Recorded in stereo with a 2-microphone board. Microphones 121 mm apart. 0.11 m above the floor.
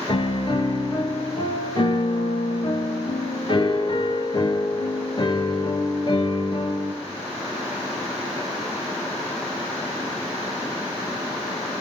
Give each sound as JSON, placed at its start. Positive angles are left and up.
{"t": 0.1, "sound": "a piano", "side_deg": 40, "distance_m": 1.6}